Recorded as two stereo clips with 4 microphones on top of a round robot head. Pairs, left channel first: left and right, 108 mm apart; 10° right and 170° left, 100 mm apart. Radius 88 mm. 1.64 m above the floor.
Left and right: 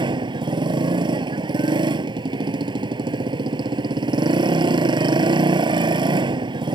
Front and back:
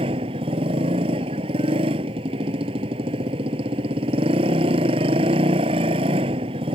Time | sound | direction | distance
0.0 | a motorcycle | 140° right | ?